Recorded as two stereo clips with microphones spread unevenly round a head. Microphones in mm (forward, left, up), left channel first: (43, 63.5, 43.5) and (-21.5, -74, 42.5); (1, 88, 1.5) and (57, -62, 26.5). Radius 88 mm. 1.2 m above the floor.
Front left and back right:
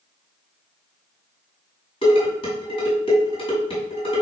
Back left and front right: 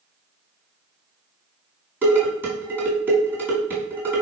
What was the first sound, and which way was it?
Dishes clattering, 5° left.